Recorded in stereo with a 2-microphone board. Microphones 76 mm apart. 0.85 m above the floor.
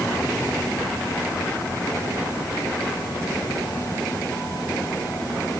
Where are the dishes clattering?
No dishes clattering in this recording.